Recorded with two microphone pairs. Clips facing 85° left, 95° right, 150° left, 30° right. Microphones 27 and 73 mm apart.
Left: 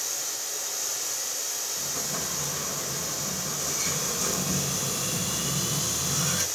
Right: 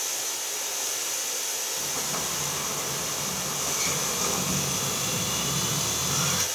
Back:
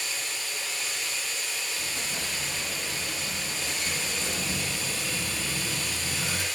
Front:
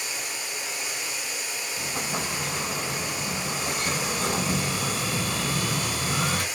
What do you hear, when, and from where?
0.0 s running water: 105° right, 7 m
1.8 s an explosion: 25° right, 3 m